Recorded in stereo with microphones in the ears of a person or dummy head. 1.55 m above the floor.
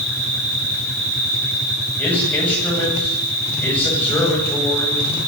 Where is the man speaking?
10° left (ahead or behind), 9.5 m.